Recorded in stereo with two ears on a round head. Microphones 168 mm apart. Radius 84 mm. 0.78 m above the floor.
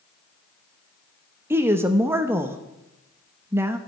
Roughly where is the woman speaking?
Centre.